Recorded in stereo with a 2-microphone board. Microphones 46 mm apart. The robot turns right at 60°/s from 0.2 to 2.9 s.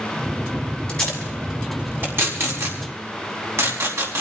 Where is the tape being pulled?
25° left (ahead or behind), 4 m; by 4.2 s 80° right, 4 m.